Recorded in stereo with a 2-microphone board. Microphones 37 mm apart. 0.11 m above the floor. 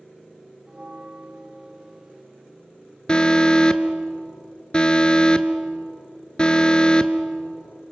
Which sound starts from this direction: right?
A bell, at 0.7 s.